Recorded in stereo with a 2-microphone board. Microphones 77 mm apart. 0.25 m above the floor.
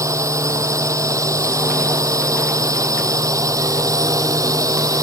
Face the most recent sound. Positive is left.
turn(degrees=-45)  # may be behind; listen again after turning